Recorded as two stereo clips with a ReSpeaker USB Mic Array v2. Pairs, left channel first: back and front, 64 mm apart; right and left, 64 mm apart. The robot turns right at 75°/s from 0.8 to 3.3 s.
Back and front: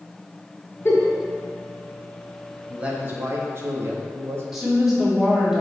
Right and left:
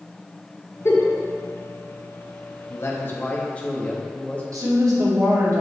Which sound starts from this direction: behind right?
A giggle, at 0.8 s.